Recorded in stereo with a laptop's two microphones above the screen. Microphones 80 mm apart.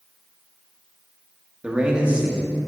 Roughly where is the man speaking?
Centre.